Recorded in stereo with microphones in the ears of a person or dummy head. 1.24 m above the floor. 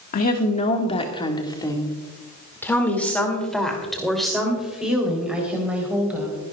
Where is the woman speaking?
45° left (ahead or behind), 1.5 m; by 6.4 s 10° right (ahead or behind), 4 m.